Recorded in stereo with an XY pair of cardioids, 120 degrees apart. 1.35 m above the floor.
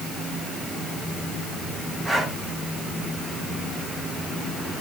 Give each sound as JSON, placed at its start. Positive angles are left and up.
{"t": 2.0, "sound": "breathing", "azimuth_deg": -20, "distance_m": 6.5}